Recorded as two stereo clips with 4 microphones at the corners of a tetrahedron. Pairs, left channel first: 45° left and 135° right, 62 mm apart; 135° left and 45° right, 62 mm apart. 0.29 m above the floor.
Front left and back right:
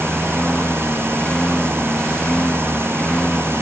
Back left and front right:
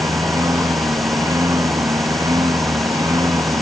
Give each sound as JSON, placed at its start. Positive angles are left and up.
{"t": 0.0, "sound": "a lawn mower", "azimuth_deg": -30}